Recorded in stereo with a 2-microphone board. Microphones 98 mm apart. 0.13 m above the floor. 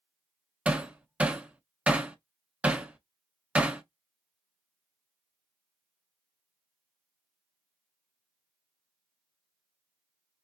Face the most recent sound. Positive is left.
turn(degrees=-15)  # may be behind; listen again after turning